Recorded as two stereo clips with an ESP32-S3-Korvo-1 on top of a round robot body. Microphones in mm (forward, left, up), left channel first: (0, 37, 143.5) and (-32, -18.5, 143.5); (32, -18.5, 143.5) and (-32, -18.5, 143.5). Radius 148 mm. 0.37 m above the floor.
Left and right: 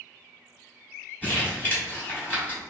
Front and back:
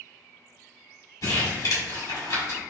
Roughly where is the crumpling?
Ahead.